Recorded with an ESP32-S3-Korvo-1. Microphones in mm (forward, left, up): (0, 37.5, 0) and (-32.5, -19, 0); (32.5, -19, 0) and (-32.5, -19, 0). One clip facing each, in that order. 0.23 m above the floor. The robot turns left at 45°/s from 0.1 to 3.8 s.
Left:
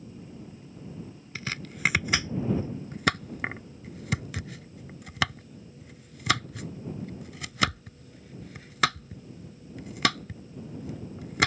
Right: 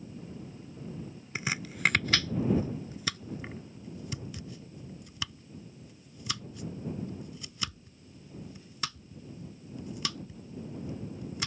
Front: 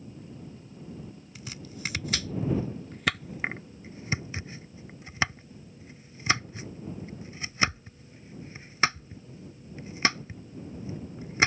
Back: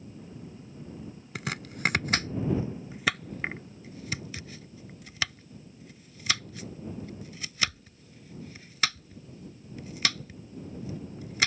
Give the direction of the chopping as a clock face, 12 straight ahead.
6 o'clock.